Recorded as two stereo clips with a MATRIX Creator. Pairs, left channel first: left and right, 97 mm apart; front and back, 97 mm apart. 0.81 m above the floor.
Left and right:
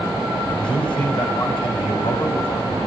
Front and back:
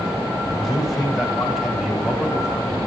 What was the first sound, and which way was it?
A man speaking, 90° left.